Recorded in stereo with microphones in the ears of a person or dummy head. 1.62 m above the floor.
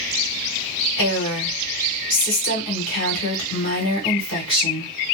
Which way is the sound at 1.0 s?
60° left (ahead or behind).